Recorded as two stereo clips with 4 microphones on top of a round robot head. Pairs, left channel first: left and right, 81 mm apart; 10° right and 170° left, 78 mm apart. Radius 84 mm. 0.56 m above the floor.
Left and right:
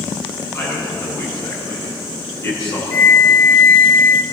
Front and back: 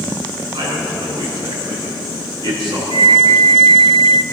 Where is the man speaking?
140° left, 6.5 m.